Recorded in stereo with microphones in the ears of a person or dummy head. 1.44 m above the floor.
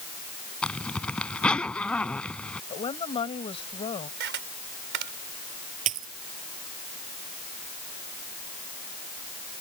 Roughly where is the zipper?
Centre.